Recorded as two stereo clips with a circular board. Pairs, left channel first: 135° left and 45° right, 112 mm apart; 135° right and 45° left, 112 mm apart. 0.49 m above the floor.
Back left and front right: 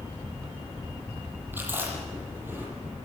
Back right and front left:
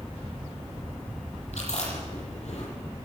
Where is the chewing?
115° right, 9 m.